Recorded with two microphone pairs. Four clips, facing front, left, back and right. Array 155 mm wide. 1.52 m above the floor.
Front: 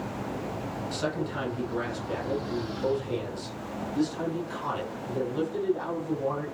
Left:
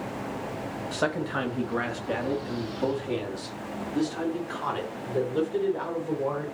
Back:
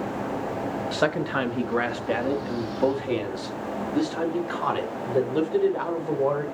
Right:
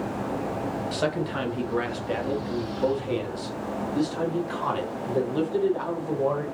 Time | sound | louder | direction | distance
0.9 | a man speaking | left 1 dB, back 6 dB | 175° left | 2 m